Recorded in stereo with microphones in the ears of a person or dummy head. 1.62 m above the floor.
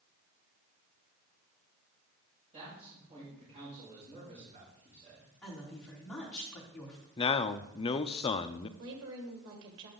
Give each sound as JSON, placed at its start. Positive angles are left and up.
{"t": 2.5, "sound": "a man speaking", "side_deg": -30, "distance_m": 5.5}
{"t": 5.4, "sound": "a woman speaking", "side_deg": 5, "distance_m": 3.5}
{"t": 7.2, "sound": "a man speaking", "side_deg": 25, "distance_m": 0.5}
{"t": 8.8, "sound": "a woman speaking", "side_deg": -70, "distance_m": 1.8}